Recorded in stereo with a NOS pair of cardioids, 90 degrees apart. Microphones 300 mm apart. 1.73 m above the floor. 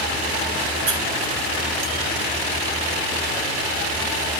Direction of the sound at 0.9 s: 70° right.